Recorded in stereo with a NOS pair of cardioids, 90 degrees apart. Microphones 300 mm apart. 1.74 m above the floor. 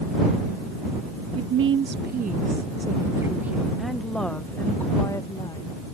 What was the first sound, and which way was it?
A woman speaking, 50° right.